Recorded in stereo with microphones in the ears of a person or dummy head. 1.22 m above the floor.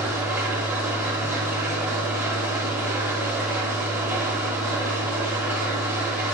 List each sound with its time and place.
0.0 s an engine running: 10° right (ahead or behind), 1.3 m